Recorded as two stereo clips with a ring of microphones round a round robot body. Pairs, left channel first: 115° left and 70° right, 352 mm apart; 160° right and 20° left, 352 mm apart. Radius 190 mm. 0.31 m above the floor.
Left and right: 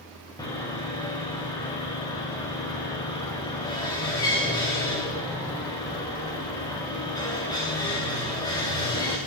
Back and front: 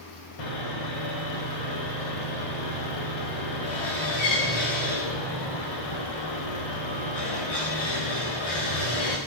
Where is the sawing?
165° right, 8.5 m.